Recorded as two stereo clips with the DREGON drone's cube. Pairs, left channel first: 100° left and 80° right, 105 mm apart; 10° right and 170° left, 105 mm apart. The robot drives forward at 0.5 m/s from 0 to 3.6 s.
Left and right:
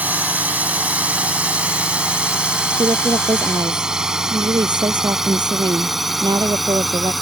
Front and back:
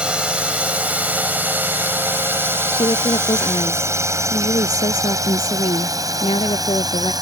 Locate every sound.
0.0 s a drone: 125° right; by 7.2 s 170° right
2.7 s a woman speaking: 30° right; by 7.1 s 35° right